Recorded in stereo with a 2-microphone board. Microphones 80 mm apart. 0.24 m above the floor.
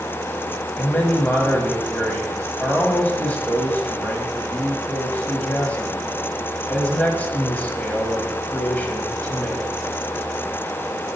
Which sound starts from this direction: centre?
A man speaking, at 0.8 s.